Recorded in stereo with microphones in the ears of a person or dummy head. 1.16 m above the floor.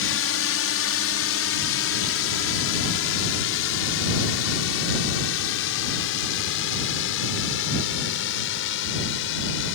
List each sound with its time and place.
0.0 s a drone: 60° left (ahead or behind); by 9.8 s 65° left (ahead or behind)